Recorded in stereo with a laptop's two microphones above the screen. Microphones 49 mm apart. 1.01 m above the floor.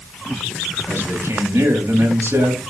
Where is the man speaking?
70° right (ahead or behind), 7.5 m.